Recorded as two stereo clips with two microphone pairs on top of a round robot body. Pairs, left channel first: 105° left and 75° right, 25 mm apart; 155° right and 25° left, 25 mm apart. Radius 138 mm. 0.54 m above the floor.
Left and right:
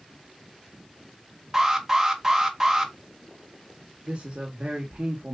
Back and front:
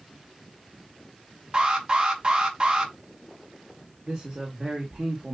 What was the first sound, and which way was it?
An alarm, 15° right.